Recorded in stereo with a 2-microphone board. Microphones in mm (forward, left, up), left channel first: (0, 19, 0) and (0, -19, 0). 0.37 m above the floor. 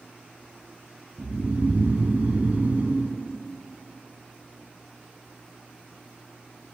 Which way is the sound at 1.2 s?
45° right (ahead or behind).